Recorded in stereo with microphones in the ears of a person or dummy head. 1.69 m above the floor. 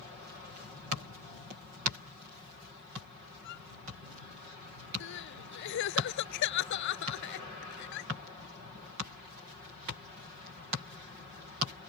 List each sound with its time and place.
3.4 s a violin: 60° left (ahead or behind)
5.0 s crying: 60° left (ahead or behind)